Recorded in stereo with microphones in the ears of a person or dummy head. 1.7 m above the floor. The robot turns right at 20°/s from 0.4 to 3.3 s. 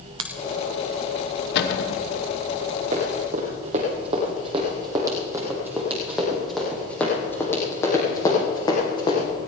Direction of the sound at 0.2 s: 15° right (ahead or behind).